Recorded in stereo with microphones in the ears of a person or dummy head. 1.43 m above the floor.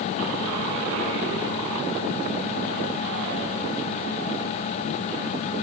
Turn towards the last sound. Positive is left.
No sound to turn to.